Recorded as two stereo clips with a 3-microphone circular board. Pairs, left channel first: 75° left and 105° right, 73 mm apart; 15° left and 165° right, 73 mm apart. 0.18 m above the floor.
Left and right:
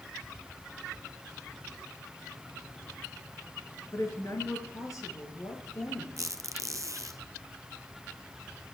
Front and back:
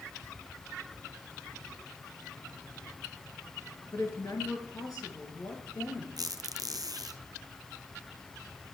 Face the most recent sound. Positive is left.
turn(degrees=-145)